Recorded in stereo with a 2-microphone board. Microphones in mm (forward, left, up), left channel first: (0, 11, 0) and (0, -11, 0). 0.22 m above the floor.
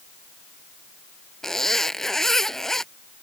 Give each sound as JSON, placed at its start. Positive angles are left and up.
{"t": 1.4, "sound": "a zipper", "side_deg": 15}